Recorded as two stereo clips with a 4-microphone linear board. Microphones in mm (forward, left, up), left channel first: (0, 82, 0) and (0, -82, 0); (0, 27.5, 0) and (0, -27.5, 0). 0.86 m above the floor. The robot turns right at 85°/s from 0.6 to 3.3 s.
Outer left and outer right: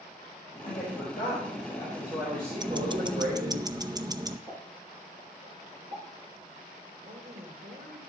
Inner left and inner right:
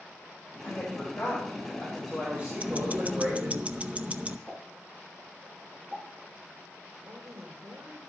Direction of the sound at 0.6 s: 60° left.